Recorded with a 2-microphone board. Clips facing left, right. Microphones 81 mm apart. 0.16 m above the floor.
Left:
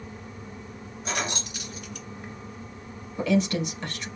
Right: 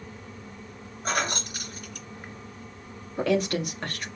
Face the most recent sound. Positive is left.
turn(degrees=-50)  # may be behind; listen again after turning